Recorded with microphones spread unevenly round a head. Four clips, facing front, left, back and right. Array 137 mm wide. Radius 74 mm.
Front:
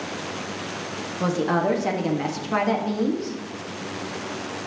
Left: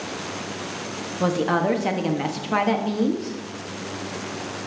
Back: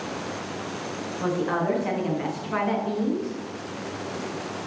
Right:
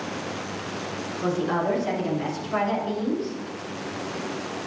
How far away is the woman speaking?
About 1.5 m.